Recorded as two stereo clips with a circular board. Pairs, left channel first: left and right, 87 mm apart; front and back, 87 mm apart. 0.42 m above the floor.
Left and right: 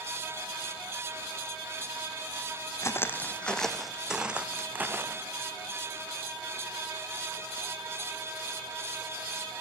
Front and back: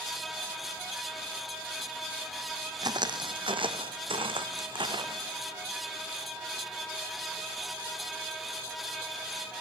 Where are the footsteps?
145° left, 1.2 m; by 5.3 s 150° right, 2 m.